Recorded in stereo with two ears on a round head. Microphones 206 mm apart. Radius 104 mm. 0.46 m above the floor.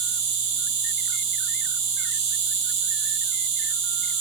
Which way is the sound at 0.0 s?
50° right (ahead or behind).